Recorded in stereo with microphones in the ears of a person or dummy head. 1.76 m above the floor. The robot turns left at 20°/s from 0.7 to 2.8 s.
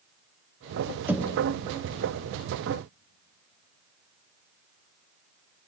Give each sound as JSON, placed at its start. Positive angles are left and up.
{"t": 1.1, "sound": "knocking", "side_deg": -10, "distance_m": 0.9}